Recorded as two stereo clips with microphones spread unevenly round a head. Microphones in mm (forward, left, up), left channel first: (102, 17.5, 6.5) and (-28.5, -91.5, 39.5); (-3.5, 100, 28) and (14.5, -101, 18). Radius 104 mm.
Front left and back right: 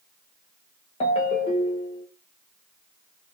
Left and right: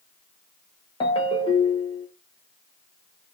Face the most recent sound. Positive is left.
turn(degrees=85)